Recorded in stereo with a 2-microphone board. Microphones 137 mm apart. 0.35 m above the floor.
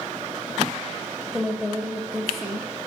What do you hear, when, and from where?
1.3 s a woman speaking: centre (ahead or behind), 1.7 m